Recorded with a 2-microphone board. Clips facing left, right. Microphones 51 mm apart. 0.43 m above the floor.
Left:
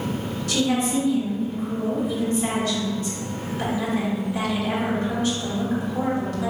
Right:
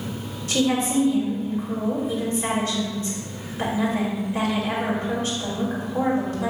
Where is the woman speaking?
30° right (ahead or behind), 1.9 m.